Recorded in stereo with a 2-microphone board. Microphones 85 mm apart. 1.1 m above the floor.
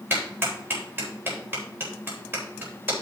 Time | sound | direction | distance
0.1 | a clap | 25° right (ahead or behind) | 4 m